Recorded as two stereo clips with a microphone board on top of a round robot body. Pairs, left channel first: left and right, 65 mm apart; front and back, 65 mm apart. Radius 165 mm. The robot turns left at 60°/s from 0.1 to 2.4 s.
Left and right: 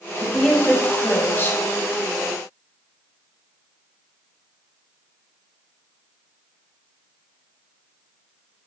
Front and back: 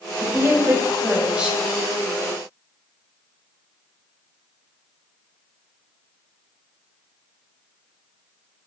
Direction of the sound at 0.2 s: 170° right.